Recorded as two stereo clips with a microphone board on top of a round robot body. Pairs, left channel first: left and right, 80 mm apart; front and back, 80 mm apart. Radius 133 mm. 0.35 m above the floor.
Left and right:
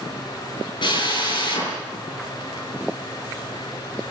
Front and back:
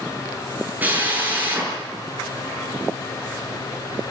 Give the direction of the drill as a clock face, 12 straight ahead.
8 o'clock.